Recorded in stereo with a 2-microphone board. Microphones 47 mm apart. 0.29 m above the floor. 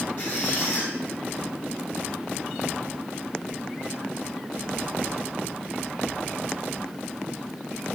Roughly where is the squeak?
Left.